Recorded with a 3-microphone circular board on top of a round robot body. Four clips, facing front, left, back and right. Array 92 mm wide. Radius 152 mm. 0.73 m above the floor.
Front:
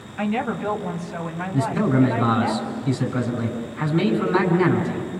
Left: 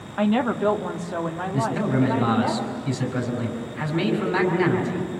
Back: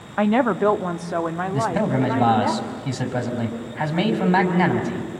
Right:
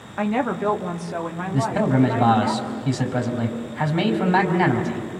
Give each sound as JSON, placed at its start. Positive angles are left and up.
{"t": 0.2, "sound": "a woman speaking", "azimuth_deg": -175, "distance_m": 1.2}
{"t": 1.5, "sound": "a man speaking", "azimuth_deg": -140, "distance_m": 5.5}